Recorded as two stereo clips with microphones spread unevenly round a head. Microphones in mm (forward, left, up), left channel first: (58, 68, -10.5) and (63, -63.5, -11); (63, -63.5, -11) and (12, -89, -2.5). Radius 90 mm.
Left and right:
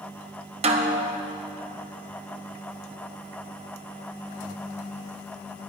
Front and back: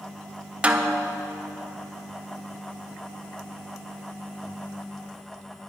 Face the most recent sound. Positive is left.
turn(degrees=-100)